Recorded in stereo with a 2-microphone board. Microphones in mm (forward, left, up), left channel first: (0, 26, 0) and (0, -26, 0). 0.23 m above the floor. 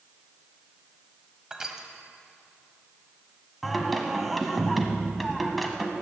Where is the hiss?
I don't hear a hiss.